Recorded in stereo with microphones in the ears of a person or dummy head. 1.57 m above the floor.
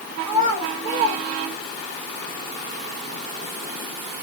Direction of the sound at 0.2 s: 70° right (ahead or behind).